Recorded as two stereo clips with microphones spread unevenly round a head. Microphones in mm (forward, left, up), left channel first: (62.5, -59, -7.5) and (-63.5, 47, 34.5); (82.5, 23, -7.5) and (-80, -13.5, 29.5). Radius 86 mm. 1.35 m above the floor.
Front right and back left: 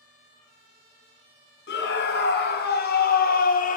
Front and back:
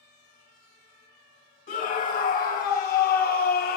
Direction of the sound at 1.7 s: 25° right.